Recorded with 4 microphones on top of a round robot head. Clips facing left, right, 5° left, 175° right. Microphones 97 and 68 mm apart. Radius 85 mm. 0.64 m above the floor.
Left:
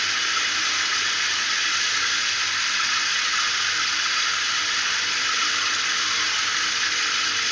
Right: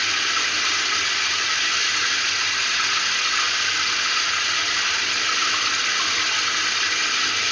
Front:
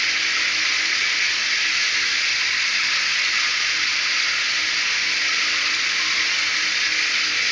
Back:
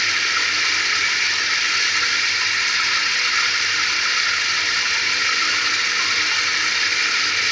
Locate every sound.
0.0 s running water: 115° right, 1.2 m